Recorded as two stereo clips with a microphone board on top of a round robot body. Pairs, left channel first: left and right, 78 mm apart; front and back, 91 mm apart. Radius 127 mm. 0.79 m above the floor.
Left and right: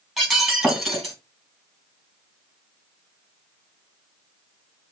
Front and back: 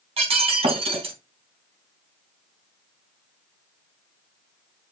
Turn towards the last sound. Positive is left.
turn(degrees=-175)